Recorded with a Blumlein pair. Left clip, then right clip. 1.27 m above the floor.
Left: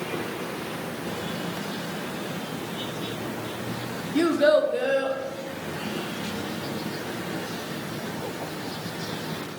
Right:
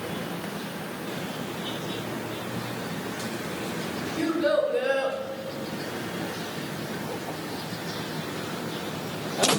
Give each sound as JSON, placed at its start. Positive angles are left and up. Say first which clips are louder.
{"t": 4.2, "sound": "a child speaking", "louder": "left 5 dB", "azimuth_deg": 35, "distance_m": 0.6}